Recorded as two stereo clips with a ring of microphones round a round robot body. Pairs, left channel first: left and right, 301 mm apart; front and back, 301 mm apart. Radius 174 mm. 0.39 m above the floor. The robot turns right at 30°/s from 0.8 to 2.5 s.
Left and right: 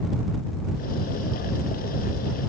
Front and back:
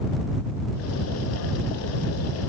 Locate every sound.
Only background noise.